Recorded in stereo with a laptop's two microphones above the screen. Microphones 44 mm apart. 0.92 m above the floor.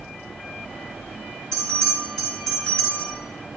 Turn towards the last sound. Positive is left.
turn(degrees=15)  # may be behind; listen again after turning